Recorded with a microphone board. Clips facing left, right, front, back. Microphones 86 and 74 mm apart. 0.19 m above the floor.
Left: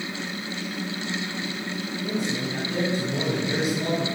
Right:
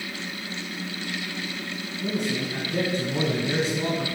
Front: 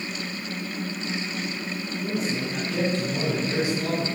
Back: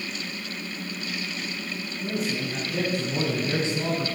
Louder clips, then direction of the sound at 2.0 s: Right 1 dB, even; 85° right.